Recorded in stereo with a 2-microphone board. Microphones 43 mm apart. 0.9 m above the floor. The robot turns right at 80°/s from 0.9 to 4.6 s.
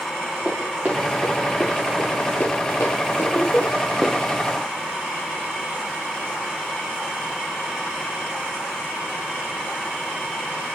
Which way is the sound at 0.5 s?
35° right (ahead or behind).